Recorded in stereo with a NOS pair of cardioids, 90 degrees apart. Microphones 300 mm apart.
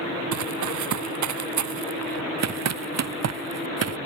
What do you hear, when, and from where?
0.3 s running footsteps: 70° right; by 4.0 s 50° right